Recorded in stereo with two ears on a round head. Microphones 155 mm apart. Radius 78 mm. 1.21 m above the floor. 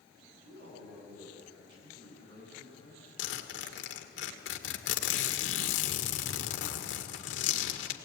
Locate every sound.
0.5 s a man speaking: 70° right (ahead or behind), 9.5 m
3.2 s a zipper: 80° left, 2 m